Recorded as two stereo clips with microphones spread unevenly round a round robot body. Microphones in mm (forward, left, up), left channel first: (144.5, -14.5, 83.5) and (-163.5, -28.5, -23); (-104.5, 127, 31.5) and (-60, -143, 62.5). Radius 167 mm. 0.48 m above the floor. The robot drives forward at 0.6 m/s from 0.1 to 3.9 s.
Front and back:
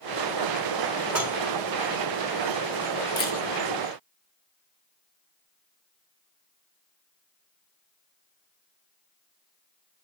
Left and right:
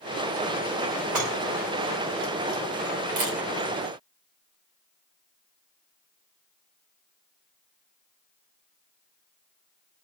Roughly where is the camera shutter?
Right.